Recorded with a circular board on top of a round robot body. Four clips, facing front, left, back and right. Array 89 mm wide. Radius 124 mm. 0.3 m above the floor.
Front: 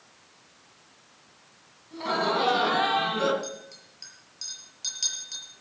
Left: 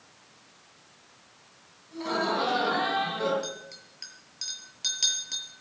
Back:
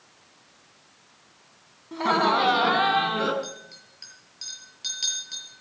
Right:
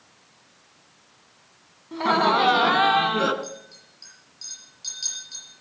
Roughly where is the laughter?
Behind right.